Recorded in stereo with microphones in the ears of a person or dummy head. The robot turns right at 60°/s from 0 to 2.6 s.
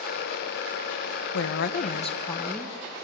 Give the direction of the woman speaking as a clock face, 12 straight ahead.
9 o'clock.